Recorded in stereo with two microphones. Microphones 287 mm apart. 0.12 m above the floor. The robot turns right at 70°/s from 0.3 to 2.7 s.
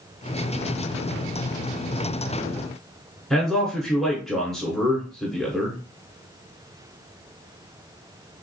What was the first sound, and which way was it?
A man speaking, centre (ahead or behind).